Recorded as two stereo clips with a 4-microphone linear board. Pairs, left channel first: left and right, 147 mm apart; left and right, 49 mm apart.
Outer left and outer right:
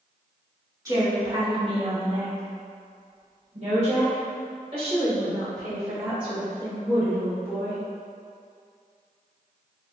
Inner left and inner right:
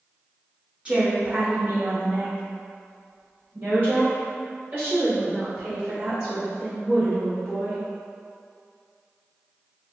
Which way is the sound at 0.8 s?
20° right (ahead or behind).